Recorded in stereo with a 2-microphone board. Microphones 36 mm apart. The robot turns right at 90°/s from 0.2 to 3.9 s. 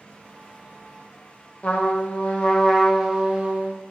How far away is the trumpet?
About 0.6 m.